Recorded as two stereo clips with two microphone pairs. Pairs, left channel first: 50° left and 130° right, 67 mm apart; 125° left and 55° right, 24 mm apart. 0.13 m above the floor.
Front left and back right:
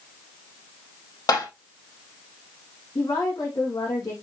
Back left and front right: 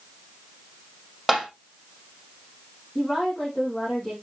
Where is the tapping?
30° left, 5 m.